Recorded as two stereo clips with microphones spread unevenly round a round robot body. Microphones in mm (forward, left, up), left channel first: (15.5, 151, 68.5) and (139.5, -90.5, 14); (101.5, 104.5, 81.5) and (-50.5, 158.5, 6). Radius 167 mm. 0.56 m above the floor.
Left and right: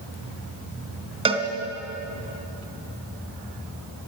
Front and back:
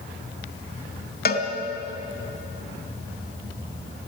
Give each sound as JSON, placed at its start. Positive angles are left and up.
{"t": 1.2, "sound": "a cowbell", "azimuth_deg": 10, "distance_m": 3.0}